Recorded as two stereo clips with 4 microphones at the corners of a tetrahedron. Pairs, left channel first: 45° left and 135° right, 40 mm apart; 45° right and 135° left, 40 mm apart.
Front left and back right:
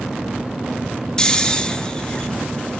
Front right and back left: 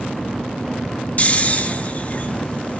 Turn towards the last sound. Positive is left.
turn(degrees=-20)